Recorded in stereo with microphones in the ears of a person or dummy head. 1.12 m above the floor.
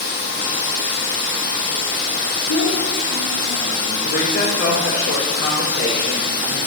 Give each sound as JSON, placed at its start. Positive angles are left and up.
{"t": 0.0, "sound": "running water", "side_deg": 60, "distance_m": 1.8}
{"t": 2.5, "sound": "a child speaking", "side_deg": 80, "distance_m": 1.2}
{"t": 4.0, "sound": "a woman speaking", "side_deg": 60, "distance_m": 3.5}